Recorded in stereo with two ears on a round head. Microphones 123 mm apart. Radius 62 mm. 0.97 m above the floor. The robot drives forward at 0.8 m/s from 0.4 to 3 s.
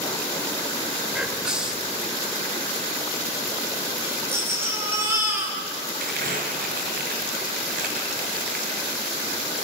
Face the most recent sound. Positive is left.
turn(degrees=-75)  # may be behind; listen again after turning